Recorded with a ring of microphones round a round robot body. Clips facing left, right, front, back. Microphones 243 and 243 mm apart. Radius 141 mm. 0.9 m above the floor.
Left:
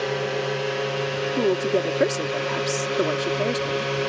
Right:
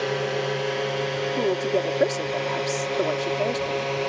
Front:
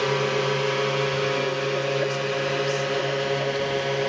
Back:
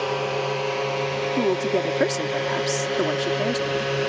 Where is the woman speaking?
155° left.